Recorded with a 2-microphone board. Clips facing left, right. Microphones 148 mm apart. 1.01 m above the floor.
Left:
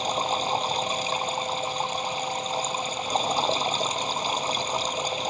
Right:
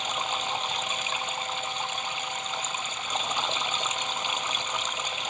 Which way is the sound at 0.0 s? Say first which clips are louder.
Left 6 dB; 35° left (ahead or behind).